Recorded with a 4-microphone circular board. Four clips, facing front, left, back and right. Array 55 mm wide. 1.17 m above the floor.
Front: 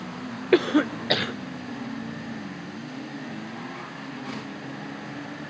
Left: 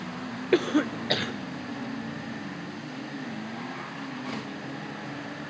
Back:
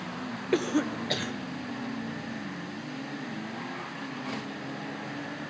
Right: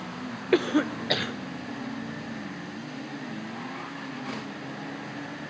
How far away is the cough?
About 0.6 m.